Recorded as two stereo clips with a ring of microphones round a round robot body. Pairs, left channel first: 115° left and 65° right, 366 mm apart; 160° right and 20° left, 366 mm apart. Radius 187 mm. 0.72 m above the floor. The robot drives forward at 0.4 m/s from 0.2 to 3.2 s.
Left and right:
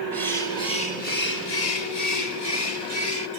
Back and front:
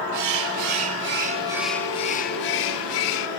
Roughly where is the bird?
Ahead left.